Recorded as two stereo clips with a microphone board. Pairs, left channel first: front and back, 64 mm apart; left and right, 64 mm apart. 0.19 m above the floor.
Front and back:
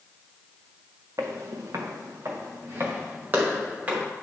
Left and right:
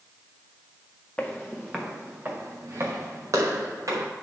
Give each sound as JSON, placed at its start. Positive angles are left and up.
{"t": 1.2, "sound": "footsteps", "azimuth_deg": 165, "distance_m": 1.4}